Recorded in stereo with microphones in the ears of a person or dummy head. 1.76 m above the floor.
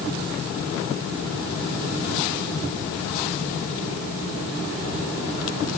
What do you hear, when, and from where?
Only background noise.